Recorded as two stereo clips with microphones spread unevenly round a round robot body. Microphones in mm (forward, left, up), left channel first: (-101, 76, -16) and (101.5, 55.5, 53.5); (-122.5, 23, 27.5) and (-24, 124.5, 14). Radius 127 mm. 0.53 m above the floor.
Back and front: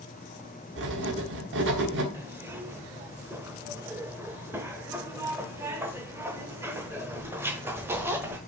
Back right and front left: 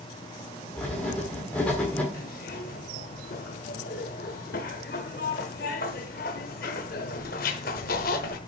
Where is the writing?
50° right, 1.3 m.